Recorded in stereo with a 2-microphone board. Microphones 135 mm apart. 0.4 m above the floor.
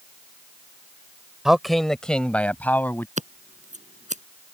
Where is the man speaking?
5° right (ahead or behind); by 3.1 s 15° left (ahead or behind).